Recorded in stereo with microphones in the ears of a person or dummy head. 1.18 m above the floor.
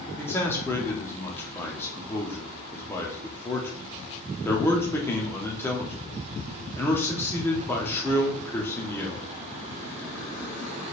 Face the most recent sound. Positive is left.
turn(degrees=15)  # may be behind; listen again after turning